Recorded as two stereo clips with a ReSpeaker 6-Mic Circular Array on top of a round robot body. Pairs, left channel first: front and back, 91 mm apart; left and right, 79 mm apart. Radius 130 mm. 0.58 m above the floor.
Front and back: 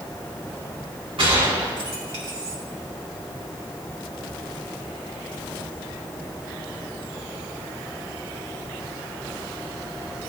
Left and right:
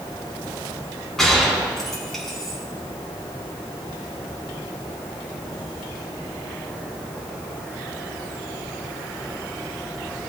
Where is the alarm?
No alarm in this recording.